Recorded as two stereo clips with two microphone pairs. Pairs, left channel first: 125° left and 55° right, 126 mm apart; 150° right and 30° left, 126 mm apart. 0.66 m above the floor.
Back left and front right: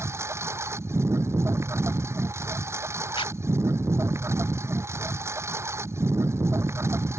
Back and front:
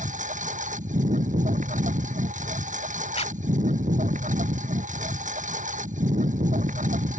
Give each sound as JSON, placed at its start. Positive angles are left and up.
{"t": 0.0, "sound": "a lawn mower", "azimuth_deg": 15}
{"t": 3.1, "sound": "a zipper", "azimuth_deg": 175}